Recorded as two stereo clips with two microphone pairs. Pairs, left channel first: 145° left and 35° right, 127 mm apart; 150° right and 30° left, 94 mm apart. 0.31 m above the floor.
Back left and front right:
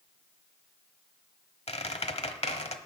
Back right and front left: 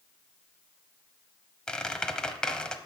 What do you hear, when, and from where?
1.7 s a squeak: 130° left, 1.0 m